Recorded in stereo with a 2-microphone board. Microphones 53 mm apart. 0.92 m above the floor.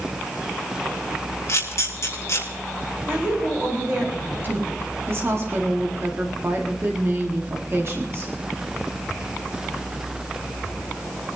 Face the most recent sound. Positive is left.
turn(degrees=-50)  # may be behind; listen again after turning